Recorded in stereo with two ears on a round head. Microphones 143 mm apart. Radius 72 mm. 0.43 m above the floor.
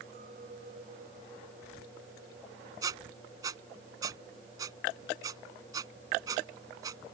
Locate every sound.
0.1 s a clink: 50° right (ahead or behind)
2.8 s a squeak: 25° right (ahead or behind)